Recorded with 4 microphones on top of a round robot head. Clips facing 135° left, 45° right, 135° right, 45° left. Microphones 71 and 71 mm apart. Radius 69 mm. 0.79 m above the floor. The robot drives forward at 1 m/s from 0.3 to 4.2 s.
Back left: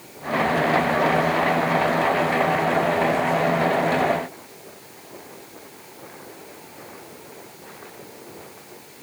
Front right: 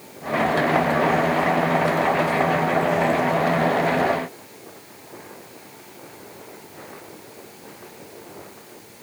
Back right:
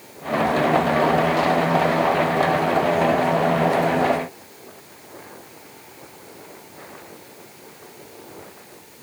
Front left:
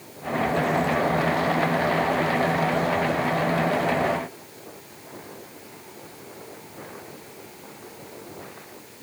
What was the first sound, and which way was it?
Only background noise.